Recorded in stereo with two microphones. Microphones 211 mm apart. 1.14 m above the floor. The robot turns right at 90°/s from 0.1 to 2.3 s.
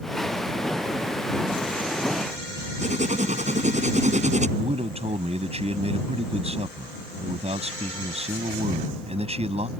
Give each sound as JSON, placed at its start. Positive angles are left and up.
{"t": 2.8, "sound": "writing", "side_deg": -35}
{"t": 4.6, "sound": "a man speaking", "side_deg": -30}